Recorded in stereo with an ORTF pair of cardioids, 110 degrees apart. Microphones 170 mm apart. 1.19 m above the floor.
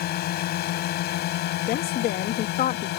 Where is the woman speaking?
65° left.